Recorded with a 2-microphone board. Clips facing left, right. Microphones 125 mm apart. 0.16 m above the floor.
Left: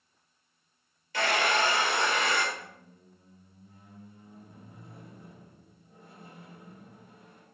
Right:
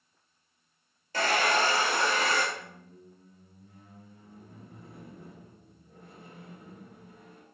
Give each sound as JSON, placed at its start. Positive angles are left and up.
{"t": 1.1, "sound": "a hair dryer", "side_deg": -40, "distance_m": 1.2}
{"t": 2.5, "sound": "a squeak", "side_deg": -65, "distance_m": 2.5}